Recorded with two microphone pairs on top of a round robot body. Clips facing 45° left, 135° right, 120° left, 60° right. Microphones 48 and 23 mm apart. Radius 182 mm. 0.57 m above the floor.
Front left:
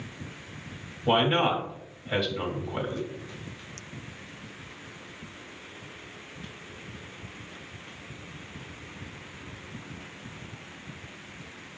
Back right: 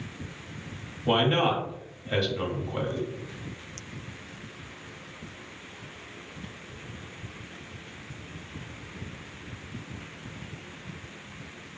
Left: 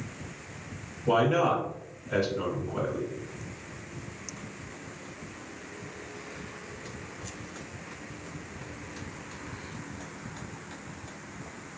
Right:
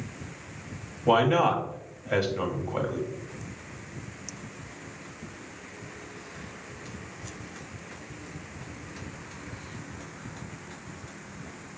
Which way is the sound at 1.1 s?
40° right.